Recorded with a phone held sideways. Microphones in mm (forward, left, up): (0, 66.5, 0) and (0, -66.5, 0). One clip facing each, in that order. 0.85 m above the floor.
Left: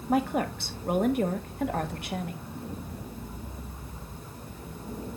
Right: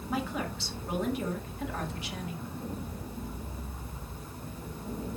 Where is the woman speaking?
55° left (ahead or behind), 1.5 m.